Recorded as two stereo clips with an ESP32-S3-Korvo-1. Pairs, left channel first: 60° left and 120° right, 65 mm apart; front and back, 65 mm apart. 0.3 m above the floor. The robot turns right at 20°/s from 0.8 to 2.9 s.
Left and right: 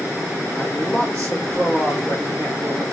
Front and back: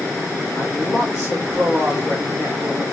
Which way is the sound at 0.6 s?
5° left.